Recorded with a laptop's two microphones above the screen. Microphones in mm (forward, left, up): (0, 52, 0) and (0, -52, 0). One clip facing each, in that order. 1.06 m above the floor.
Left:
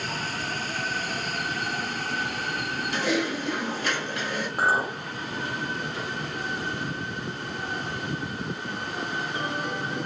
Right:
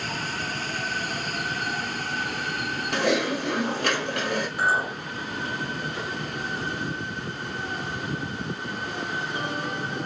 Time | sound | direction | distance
2.9 | typing on a keyboard | 70° right (ahead or behind) | 1.0 m
4.6 | a clink | 45° left (ahead or behind) | 0.8 m